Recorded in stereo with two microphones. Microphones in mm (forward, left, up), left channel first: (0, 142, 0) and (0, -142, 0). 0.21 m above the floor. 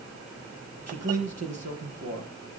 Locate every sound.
0.9 s a man speaking: 65° right (ahead or behind), 5 m